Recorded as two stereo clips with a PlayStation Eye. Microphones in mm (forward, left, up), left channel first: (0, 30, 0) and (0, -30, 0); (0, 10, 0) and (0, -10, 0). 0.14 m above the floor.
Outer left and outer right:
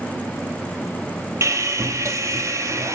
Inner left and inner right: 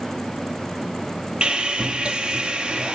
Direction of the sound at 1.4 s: 55° right (ahead or behind).